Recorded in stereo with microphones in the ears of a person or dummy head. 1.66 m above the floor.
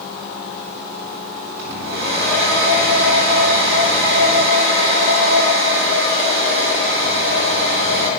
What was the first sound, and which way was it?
A hair dryer, 65° right (ahead or behind).